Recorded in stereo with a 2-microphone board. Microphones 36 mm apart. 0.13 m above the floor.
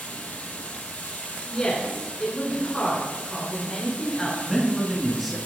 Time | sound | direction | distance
0.0 | running water | 45° left (ahead or behind) | 0.9 m
1.5 | a woman speaking | 25° left (ahead or behind) | 1.5 m
4.4 | a man speaking | centre (ahead or behind) | 1.5 m